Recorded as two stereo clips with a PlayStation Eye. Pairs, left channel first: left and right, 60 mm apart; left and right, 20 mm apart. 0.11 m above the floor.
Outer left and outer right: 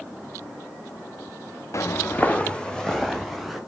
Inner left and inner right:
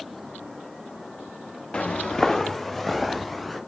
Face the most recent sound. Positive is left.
turn(degrees=5)  # may be behind; listen again after turning